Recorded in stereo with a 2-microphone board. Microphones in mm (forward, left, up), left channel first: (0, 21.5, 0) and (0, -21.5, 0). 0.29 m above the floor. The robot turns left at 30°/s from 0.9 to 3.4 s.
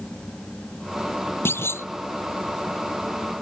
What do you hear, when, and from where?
1.4 s a clunk: 65° left (ahead or behind); by 1.9 s 80° left